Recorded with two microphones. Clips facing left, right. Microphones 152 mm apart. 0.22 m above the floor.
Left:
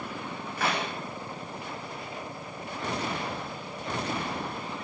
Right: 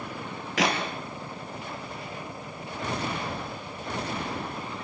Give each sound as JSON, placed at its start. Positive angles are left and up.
{"t": 0.6, "sound": "a clap", "side_deg": -75, "distance_m": 5.5}